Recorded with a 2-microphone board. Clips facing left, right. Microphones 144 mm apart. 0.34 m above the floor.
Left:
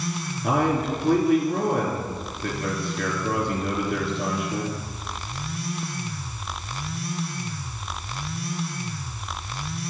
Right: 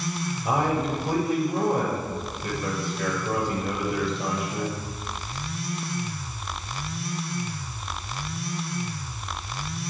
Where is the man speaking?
75° left (ahead or behind), 3.5 m.